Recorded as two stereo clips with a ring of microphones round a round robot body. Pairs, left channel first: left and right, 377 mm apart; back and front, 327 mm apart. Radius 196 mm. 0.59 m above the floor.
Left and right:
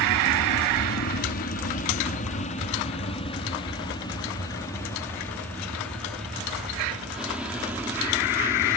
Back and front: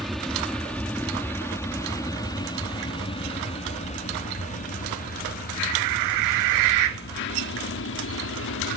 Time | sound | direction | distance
0.0 | an aircraft | 90° left | ?